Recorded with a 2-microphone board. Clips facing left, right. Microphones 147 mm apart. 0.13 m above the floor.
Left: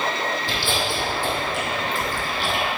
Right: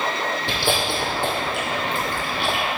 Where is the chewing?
65° right (ahead or behind), 1.9 m.